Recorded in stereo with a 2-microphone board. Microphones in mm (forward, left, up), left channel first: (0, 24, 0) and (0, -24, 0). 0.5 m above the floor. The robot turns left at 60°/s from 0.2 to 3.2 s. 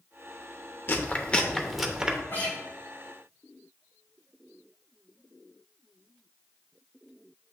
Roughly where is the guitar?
Left.